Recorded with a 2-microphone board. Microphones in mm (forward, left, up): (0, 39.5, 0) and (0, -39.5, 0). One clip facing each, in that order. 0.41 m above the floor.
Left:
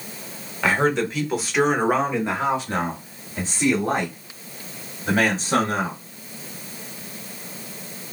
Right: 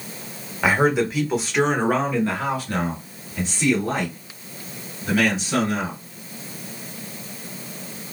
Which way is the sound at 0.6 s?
10° right (ahead or behind).